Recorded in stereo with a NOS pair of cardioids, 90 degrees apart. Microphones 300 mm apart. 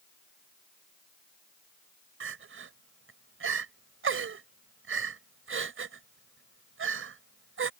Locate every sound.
2.2 s crying: 45° right